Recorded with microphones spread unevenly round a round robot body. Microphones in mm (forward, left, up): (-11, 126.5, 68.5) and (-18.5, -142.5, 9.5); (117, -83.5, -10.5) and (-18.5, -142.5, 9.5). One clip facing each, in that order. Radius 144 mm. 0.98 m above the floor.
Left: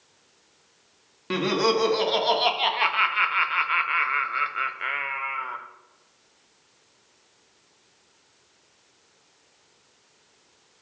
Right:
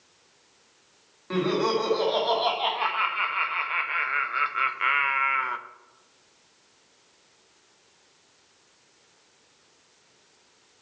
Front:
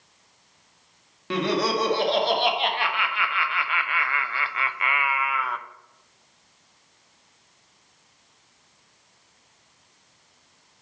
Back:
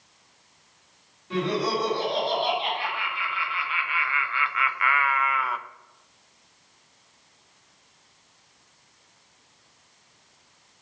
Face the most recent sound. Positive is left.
turn(degrees=-65)